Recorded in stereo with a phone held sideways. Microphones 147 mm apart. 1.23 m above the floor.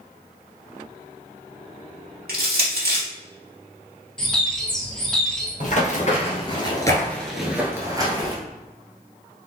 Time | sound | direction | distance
2.3 | crushing | 80° right | 1.7 m
4.2 | a bird | 5° left (ahead or behind) | 1.2 m
5.6 | running footsteps | 55° left (ahead or behind) | 2.0 m